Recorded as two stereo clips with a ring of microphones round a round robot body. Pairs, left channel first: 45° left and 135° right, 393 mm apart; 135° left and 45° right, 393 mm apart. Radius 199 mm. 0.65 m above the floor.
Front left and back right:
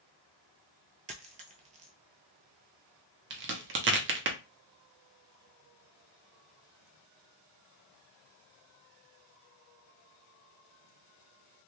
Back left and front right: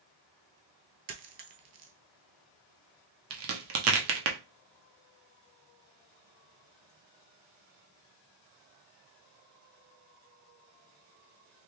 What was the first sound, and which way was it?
A dropped coin, 70° right.